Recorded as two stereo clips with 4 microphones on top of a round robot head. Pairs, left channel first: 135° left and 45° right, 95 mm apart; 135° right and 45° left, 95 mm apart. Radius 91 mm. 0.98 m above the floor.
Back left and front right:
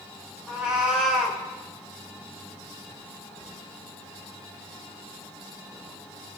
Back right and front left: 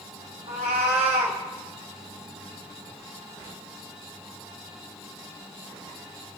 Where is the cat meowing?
35° left, 2.5 m.